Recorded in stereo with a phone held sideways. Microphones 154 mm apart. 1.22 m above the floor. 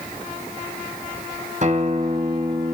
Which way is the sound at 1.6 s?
50° right (ahead or behind).